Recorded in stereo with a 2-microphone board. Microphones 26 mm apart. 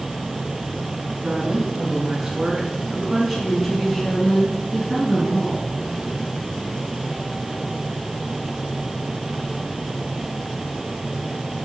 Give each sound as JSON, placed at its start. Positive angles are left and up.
{"t": 1.2, "sound": "a woman speaking", "side_deg": -35, "distance_m": 4.0}